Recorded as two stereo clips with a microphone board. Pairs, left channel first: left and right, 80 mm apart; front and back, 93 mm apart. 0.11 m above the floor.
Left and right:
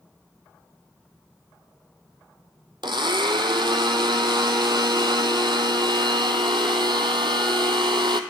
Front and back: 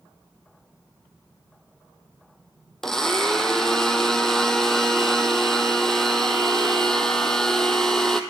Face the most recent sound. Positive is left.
turn(degrees=-85)